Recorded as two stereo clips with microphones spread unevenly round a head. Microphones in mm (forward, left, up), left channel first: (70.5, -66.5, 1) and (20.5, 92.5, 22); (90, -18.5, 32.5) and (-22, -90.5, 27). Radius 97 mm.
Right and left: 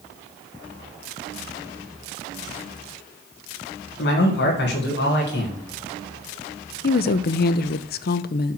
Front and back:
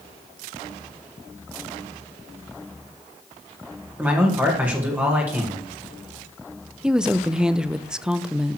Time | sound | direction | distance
4.0 | a man speaking | 70° right | 2.5 m
6.8 | a woman speaking | 60° right | 0.6 m